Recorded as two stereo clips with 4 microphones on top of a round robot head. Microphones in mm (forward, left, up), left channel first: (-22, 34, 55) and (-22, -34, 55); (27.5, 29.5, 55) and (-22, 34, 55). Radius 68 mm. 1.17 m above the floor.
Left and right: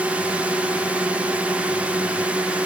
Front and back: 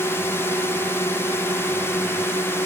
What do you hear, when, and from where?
0.0 s a drone: 20° right